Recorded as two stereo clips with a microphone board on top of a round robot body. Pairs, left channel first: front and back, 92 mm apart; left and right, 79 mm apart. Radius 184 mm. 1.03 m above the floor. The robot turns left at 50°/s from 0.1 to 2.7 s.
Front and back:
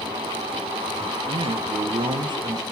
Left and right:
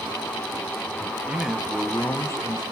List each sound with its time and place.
1.3 s a man speaking: 165° right, 0.9 m; by 2.6 s 130° left, 0.9 m